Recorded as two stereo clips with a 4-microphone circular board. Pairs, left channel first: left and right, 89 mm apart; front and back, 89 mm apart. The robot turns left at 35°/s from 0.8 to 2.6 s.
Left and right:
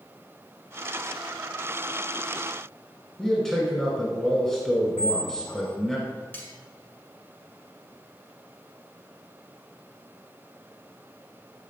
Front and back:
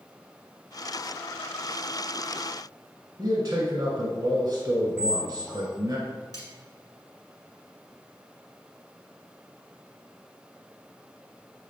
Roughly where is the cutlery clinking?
Ahead left.